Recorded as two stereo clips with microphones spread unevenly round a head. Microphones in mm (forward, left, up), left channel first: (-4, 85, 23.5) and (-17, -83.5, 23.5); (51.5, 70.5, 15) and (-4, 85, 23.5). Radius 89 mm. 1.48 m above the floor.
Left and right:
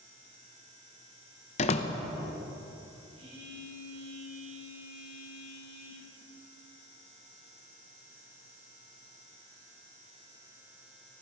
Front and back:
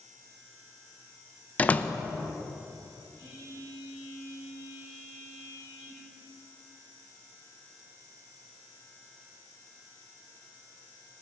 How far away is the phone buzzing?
About 4 m.